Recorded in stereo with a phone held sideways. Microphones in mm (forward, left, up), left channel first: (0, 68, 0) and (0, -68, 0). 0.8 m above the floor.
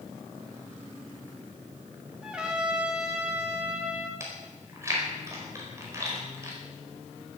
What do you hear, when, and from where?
2.2 s a trumpet: 5° right (ahead or behind), 3 m
4.2 s chewing: 20° right (ahead or behind), 4.5 m